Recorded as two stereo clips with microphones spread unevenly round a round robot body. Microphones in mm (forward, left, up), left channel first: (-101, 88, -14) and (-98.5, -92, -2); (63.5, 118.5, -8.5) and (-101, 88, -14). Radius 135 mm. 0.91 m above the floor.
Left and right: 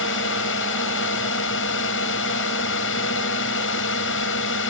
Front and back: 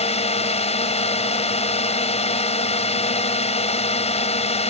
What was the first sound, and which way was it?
A drone, 60° left.